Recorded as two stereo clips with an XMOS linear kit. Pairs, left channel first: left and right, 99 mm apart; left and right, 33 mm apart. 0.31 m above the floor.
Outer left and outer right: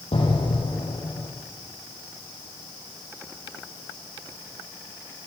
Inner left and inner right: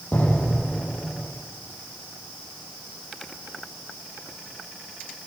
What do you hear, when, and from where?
0.1 s an explosion: 80° left, 9 m